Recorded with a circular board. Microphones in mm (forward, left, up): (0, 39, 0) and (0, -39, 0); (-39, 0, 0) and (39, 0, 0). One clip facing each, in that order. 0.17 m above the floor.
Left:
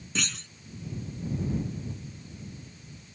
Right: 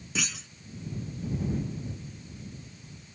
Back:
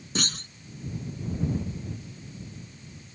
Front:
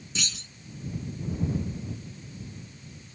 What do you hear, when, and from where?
0.1 s a clunk: 175° right